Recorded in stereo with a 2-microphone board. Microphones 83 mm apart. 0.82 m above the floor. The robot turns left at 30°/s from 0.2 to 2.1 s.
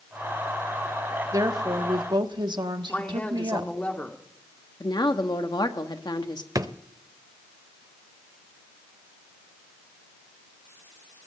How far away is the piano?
I don't hear a piano.